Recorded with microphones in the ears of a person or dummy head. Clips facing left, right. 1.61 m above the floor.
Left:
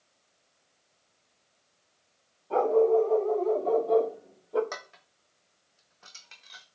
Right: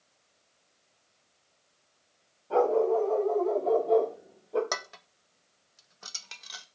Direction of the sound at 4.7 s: 65° right (ahead or behind).